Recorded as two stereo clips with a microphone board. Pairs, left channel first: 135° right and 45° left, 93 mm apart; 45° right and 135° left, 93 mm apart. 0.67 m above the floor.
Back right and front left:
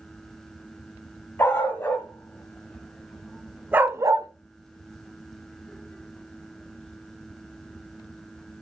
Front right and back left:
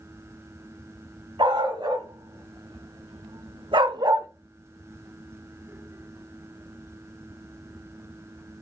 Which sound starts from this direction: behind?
A dog barking, at 1.4 s.